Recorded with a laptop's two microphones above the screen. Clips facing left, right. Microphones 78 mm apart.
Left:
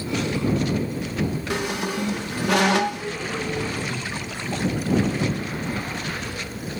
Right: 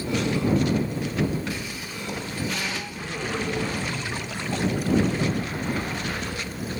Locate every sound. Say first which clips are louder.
1.5 s a squeak: left 8 dB; 65° left (ahead or behind)